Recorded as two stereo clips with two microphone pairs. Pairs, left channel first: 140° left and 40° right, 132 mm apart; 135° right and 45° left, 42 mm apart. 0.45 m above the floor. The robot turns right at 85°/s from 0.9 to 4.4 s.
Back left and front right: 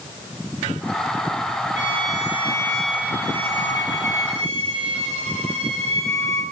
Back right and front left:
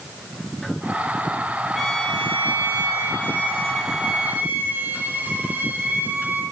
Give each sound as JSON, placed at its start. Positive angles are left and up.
{"t": 1.8, "sound": "a violin", "azimuth_deg": 140, "distance_m": 3.5}